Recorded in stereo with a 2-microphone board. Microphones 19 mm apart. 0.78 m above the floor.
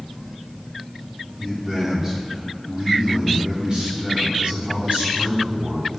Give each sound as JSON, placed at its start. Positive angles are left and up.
{"t": 1.4, "sound": "a man speaking", "side_deg": -20, "distance_m": 2.5}